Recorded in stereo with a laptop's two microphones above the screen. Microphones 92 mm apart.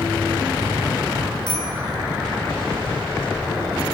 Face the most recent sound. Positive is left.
turn(degrees=50)  # may be behind; listen again after turning